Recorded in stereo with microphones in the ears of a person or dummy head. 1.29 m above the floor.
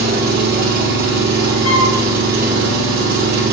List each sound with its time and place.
0.0 s an engine running: 50° right (ahead or behind), 0.8 m
1.6 s a flute: 65° left (ahead or behind), 1.6 m